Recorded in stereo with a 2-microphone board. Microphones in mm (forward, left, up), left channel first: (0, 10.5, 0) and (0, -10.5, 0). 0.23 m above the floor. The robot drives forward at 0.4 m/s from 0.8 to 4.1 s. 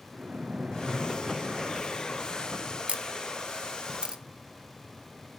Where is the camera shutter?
60° right (ahead or behind), 0.5 m; by 4.2 s 40° right (ahead or behind), 0.7 m.